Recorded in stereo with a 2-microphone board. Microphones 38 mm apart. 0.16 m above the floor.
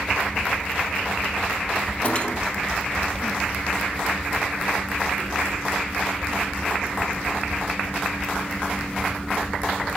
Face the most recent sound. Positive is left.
turn(degrees=35)  # may be behind; listen again after turning